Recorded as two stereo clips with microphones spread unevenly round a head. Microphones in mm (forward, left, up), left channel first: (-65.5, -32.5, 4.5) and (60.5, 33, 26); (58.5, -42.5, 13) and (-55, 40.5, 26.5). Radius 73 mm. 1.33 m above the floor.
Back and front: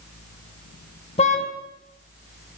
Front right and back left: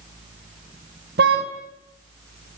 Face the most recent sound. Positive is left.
turn(degrees=160)